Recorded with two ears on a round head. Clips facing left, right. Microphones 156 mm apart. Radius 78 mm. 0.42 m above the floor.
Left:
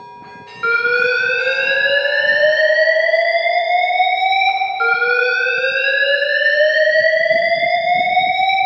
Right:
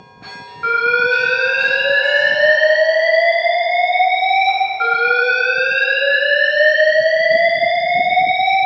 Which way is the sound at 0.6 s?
45° left (ahead or behind).